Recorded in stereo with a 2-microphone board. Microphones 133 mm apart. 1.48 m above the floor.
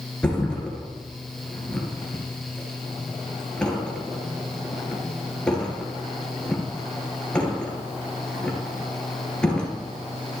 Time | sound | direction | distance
0.2 | a thud | 5° left (ahead or behind) | 2.5 m